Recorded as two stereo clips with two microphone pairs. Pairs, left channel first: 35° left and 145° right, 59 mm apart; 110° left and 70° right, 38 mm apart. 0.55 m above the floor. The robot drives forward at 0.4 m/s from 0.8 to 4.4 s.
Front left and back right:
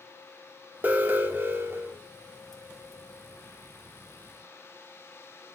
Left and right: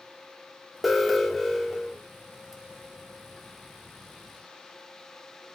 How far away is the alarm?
About 1.6 m.